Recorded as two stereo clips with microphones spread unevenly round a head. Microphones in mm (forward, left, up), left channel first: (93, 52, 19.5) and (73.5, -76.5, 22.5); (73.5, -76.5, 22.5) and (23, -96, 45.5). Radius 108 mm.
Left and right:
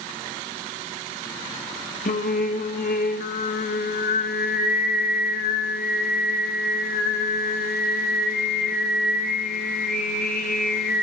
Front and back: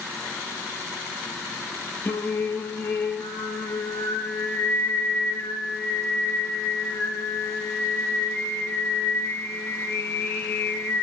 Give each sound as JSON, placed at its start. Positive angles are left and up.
{"t": 2.0, "sound": "singing", "azimuth_deg": 80, "distance_m": 2.0}